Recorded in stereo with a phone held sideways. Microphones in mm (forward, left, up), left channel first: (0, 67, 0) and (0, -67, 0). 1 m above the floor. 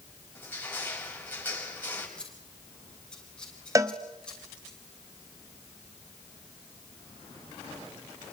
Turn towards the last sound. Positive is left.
turn(degrees=-25)  # may be behind; listen again after turning